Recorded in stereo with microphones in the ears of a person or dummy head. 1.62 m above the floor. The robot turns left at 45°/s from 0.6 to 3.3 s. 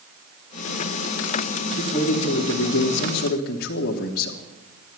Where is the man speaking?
140° left, 1.6 m; by 4.4 s 70° left, 1.6 m.